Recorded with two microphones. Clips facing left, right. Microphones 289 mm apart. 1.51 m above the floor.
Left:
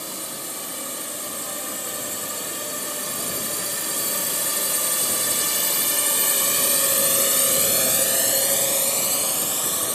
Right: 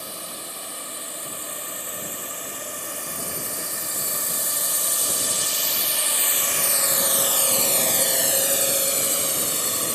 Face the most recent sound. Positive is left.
turn(degrees=-30)  # may be behind; listen again after turning